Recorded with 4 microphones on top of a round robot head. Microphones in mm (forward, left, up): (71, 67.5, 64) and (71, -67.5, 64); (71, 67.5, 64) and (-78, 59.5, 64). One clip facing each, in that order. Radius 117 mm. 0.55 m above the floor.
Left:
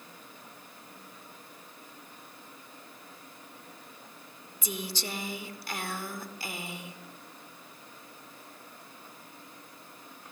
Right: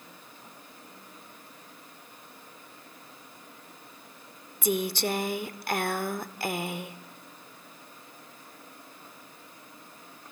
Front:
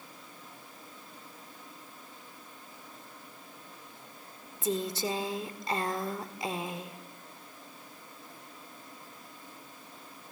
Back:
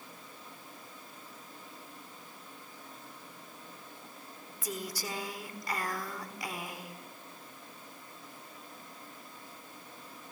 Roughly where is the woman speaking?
Ahead right.